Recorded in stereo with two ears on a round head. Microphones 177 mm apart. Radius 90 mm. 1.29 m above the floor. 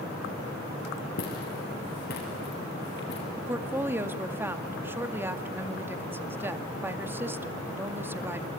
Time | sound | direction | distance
1.2 | footsteps | 45° left (ahead or behind) | 8 m
3.4 | a woman speaking | 10° right (ahead or behind) | 1.8 m